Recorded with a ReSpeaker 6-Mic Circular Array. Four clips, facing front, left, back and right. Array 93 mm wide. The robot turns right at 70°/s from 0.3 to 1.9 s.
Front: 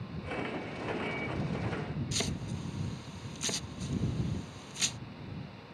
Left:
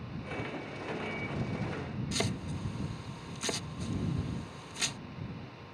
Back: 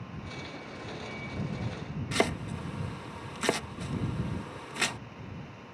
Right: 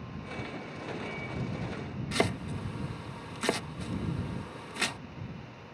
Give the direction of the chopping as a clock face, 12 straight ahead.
5 o'clock.